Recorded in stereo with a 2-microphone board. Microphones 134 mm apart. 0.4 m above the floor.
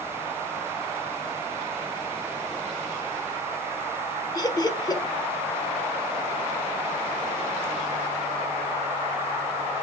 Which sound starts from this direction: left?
Laughter, at 4.3 s.